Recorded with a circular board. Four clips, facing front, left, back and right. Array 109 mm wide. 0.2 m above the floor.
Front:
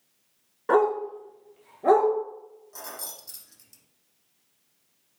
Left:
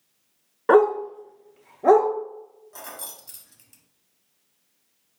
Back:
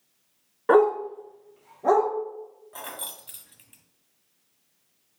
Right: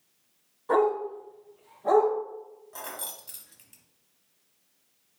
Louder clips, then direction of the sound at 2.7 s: Right 1 dB, back 3 dB; 170° right.